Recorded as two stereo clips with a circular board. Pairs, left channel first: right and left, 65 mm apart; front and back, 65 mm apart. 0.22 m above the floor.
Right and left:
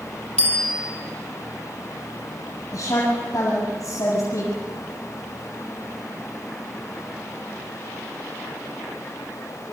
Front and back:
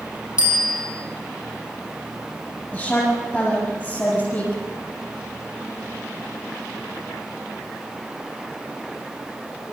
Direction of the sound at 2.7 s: 60° right.